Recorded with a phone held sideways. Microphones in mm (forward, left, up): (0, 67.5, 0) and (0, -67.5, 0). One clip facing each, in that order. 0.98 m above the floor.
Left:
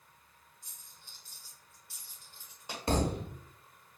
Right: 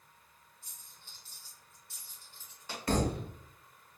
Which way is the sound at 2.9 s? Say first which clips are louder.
Even; 25° left (ahead or behind).